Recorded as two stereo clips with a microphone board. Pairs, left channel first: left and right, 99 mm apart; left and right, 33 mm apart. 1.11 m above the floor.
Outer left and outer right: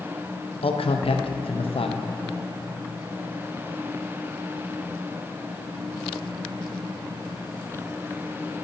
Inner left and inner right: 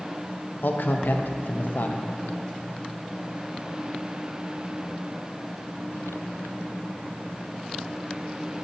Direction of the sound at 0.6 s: 70° left (ahead or behind).